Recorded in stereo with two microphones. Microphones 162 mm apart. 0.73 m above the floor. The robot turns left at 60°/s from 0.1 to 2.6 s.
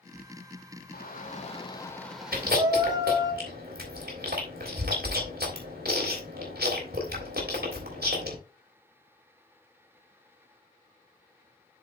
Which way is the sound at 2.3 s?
70° right (ahead or behind).